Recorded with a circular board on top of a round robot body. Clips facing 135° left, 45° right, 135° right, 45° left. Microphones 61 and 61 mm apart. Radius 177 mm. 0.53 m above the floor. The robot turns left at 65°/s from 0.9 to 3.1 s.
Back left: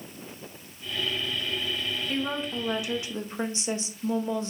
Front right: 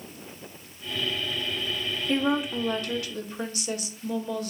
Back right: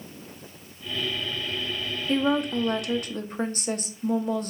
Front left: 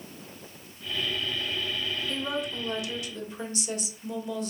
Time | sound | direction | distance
2.1 | a woman speaking | 100° right | 0.8 m